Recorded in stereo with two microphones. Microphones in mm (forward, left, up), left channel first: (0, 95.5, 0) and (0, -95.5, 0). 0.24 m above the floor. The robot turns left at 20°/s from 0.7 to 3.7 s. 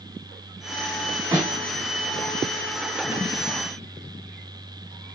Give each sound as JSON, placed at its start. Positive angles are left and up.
{"t": 1.3, "sound": "a snare drum", "side_deg": -20, "distance_m": 1.7}